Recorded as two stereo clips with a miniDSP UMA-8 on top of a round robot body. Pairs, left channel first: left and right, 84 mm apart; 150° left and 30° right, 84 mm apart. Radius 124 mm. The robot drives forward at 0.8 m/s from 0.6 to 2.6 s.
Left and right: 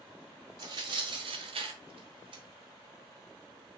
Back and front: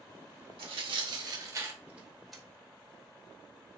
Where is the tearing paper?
45° right, 1.3 m; by 2.4 s 120° right, 1.1 m.